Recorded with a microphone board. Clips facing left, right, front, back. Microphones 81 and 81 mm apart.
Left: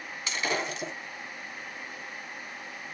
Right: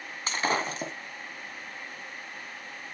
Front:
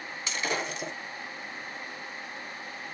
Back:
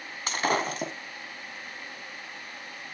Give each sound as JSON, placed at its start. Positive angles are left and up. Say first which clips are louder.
{"t": 0.3, "sound": "breaking glass", "louder": "right 3 dB, back 5 dB", "azimuth_deg": -140, "distance_m": 2.0}